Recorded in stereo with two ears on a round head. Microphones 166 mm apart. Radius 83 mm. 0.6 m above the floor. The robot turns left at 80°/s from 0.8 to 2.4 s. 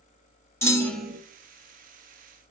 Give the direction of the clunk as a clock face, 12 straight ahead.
11 o'clock.